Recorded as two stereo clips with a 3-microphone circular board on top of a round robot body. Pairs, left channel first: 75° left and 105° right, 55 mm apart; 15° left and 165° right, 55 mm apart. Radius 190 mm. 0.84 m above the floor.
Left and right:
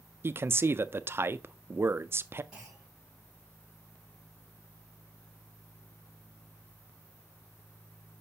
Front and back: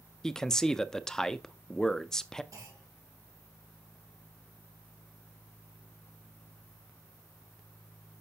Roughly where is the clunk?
Behind.